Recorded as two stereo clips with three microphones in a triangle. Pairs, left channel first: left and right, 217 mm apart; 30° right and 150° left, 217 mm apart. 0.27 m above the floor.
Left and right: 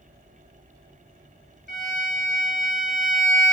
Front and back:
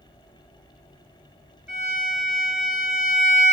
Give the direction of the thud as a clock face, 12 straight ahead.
No thud in this recording.